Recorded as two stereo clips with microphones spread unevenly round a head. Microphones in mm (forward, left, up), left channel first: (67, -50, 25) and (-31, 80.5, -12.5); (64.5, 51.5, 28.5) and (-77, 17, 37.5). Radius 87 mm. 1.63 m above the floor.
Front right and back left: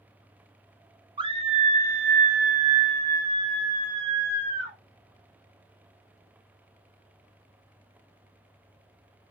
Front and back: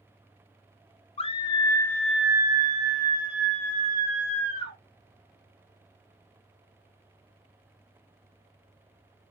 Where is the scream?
60° left, 0.8 m; by 4.8 s 150° right, 1.6 m.